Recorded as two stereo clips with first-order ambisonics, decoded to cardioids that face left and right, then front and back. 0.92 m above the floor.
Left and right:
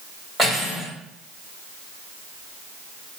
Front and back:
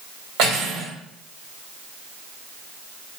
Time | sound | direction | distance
0.4 | cutlery clinking | straight behind | 2.0 m